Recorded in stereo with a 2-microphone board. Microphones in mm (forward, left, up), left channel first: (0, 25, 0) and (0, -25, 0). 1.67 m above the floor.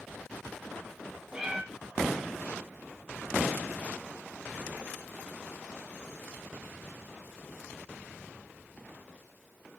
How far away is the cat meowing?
About 1.2 m.